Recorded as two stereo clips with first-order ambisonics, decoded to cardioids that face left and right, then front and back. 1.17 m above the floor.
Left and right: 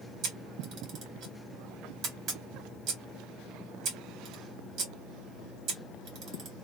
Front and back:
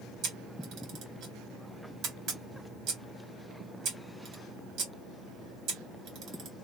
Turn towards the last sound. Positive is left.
turn(degrees=-135)